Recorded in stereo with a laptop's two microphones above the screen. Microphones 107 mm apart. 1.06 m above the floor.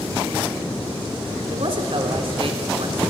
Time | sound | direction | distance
1.5 | a man speaking | 60° right (ahead or behind) | 3.5 m